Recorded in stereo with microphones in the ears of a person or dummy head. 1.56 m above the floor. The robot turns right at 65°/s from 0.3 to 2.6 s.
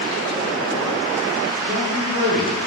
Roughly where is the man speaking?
Ahead right.